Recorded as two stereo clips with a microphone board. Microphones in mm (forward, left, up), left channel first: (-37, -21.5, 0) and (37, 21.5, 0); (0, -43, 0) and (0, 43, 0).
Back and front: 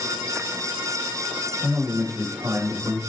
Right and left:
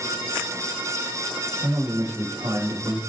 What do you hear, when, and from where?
1.6 s a man speaking: 80° left, 1.3 m